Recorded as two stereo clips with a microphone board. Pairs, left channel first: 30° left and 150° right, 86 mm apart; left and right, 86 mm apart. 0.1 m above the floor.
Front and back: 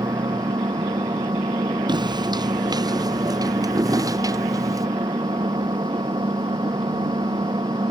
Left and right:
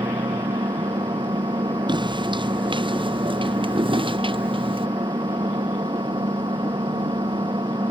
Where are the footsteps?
120° right; by 4.9 s 100° right.